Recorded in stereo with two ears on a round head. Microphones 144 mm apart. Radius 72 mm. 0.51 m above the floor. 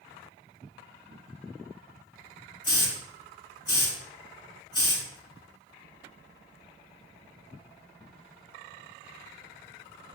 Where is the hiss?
30° left (ahead or behind), 4 m.